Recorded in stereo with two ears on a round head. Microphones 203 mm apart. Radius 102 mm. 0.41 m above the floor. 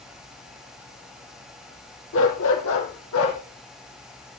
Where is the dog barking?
60° left (ahead or behind), 3.5 m; by 3.4 s 70° left (ahead or behind), 5 m.